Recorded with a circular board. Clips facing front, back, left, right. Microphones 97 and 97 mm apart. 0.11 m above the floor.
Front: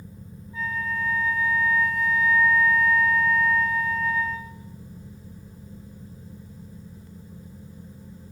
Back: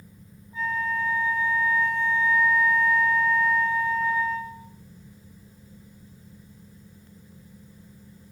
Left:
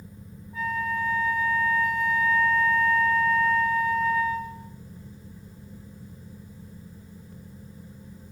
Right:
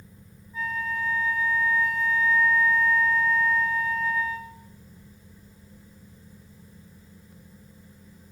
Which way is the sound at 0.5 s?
120° left.